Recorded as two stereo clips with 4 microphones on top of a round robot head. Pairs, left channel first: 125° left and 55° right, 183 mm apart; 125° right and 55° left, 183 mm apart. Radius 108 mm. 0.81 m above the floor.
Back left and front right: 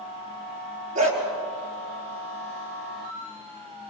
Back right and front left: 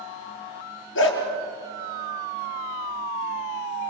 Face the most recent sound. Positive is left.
turn(degrees=-105)